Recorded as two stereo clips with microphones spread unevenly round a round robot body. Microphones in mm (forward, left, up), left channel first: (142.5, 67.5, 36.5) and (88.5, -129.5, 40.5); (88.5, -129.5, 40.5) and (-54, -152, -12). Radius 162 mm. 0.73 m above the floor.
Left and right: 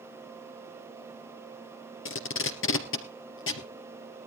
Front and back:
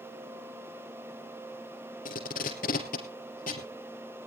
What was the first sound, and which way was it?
Tape being pulled, 60° left.